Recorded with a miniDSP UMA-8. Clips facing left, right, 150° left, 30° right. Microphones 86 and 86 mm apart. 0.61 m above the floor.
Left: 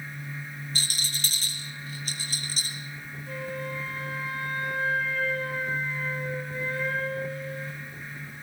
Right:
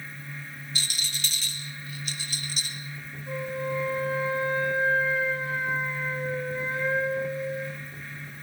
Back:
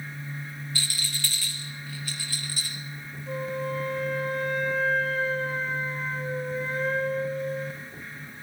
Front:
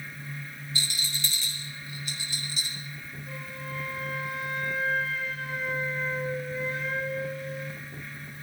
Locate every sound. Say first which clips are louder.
0.8 s a rattle: even, front 1 dB; 40° left, 3.5 m
3.3 s a flute: right 4 dB, back 11 dB; 160° right, 3.5 m